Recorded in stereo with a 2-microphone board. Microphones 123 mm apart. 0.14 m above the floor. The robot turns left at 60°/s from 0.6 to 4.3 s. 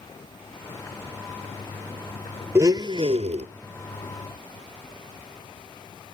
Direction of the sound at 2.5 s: 20° right.